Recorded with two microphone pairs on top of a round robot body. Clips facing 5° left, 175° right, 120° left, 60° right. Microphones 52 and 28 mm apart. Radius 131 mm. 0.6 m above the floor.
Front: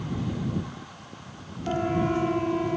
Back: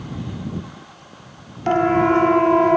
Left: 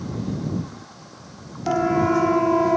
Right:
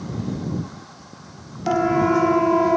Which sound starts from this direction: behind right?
A siren, at 1.7 s.